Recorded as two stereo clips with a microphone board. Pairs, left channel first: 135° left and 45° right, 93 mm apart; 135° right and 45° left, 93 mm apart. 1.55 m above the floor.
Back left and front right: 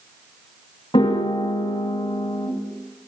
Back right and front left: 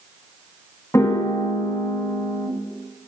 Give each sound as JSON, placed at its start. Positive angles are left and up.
{"t": 0.9, "sound": "a piano", "azimuth_deg": 165, "distance_m": 2.0}